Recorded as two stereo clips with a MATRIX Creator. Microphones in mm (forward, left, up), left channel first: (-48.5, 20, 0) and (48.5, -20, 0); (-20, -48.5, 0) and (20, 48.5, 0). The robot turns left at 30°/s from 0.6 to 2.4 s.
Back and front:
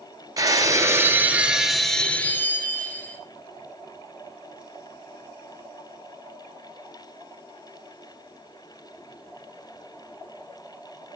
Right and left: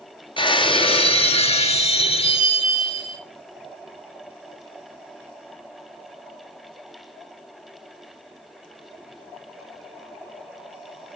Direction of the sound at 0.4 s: 75° right.